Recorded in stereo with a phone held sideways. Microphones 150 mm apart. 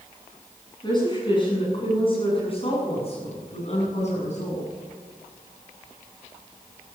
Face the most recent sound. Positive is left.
turn(degrees=50)  # may be behind; listen again after turning